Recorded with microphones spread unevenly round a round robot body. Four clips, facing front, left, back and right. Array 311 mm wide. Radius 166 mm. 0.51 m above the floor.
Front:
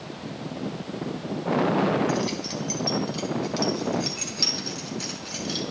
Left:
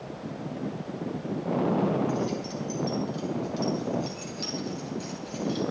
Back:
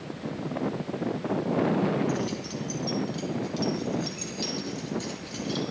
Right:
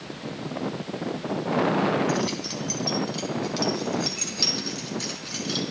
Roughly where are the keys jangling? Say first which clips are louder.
Right 2 dB, front 3 dB; ahead right.